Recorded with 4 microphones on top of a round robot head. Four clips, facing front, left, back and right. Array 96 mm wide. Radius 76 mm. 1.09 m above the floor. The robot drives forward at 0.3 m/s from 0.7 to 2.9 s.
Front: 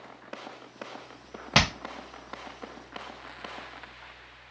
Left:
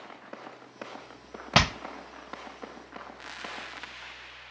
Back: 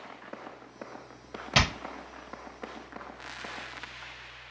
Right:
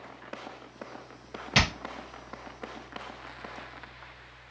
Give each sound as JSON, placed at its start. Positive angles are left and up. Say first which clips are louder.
{"t": 1.6, "sound": "hammering", "louder": "left 3 dB, front 2 dB", "azimuth_deg": 50, "distance_m": 0.6}